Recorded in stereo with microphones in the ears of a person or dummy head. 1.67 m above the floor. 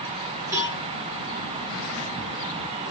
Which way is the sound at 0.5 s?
15° right (ahead or behind).